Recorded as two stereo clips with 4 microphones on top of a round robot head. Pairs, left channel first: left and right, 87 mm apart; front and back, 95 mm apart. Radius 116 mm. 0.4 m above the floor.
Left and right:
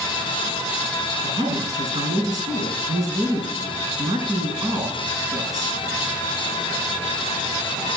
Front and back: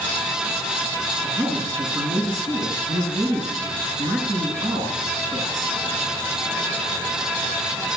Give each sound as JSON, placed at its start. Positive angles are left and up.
{"t": 1.2, "sound": "a woman speaking", "azimuth_deg": -130, "distance_m": 5.5}